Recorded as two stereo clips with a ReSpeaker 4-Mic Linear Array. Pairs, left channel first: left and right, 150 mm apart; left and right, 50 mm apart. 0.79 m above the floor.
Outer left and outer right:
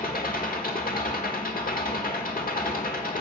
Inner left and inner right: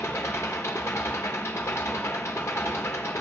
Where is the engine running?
80° left, 1.2 m.